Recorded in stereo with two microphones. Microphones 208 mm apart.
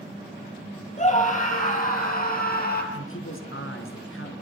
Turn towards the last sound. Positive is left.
turn(degrees=75)  # may be behind; listen again after turning